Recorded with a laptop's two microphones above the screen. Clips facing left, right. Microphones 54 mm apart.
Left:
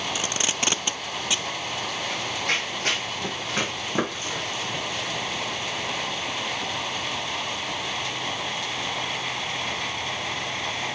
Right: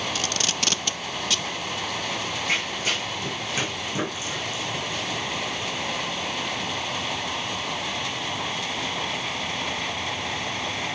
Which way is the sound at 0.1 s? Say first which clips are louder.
Even; 20° left (ahead or behind).